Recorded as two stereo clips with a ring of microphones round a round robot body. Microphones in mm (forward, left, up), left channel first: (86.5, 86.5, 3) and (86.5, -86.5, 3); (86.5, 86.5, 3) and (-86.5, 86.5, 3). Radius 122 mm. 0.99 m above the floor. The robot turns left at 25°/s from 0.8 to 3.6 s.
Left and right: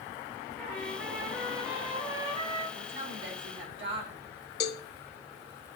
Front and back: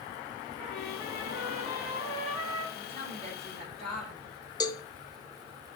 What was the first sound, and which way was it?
A trumpet, straight ahead.